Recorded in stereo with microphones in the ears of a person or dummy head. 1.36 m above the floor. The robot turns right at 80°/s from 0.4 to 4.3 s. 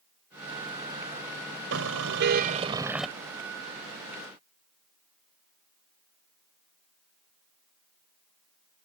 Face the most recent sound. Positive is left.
turn(degrees=95)